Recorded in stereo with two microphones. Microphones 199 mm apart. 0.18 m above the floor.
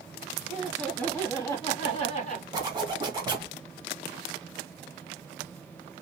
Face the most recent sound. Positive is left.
turn(degrees=-20)  # may be behind; listen again after turning